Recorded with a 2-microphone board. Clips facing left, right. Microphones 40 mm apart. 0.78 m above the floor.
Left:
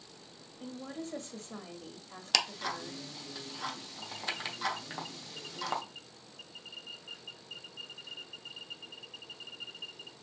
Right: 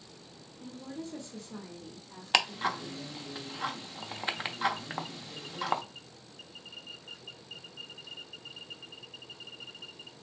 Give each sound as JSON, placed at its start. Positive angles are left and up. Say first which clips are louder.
{"t": 0.6, "sound": "a woman speaking", "louder": "even", "side_deg": 55, "distance_m": 1.4}
{"t": 2.3, "sound": "ticking", "louder": "right 5 dB", "side_deg": -30, "distance_m": 0.7}